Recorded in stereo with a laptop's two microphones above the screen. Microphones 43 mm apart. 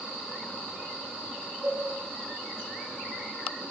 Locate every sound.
1.6 s a cowbell: 40° right (ahead or behind), 1.0 m